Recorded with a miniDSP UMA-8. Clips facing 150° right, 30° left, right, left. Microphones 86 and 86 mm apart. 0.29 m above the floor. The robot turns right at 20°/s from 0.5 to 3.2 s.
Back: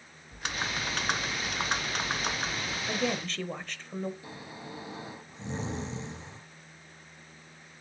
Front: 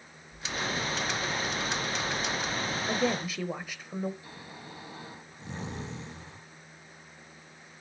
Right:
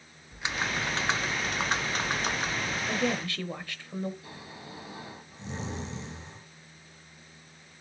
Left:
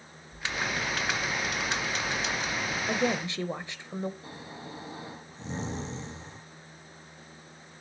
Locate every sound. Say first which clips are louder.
0.3 s typing on a keyboard: front 1 dB, even; 160° right, 0.9 m; by 2.8 s 110° right, 0.9 m
2.9 s a woman speaking: front 2 dB, left 2 dB; 90° left, 0.9 m; by 4.1 s 95° left, 0.9 m
4.2 s snoring: back 3 dB, left 2 dB; 145° left, 4 m